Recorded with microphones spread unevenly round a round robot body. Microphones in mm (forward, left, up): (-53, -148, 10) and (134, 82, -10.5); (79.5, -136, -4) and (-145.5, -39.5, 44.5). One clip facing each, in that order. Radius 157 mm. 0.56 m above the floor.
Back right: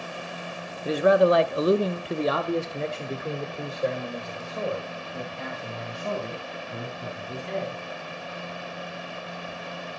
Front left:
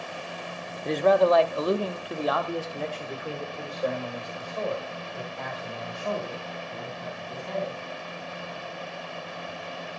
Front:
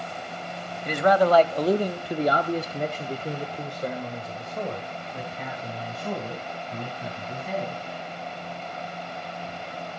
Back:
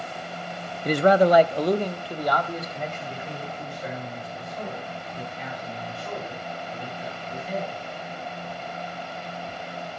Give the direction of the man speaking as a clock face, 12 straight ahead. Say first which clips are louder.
Back right 1 dB, back 3 dB; 7 o'clock.